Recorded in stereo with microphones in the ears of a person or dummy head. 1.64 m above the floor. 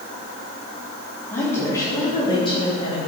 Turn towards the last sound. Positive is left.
turn(degrees=35)  # may be behind; listen again after turning